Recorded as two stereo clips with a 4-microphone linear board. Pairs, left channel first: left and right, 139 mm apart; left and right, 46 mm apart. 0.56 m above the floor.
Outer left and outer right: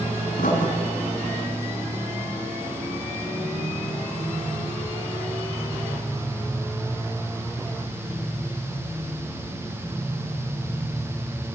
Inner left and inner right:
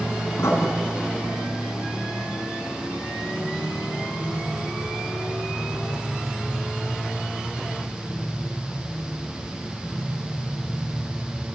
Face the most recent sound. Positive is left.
turn(degrees=75)  # may be behind; listen again after turning